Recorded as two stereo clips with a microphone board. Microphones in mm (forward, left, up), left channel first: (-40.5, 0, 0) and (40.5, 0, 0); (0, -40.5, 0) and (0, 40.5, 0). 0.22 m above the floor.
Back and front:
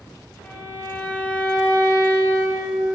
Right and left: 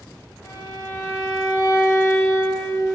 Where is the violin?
120° right, 0.8 m.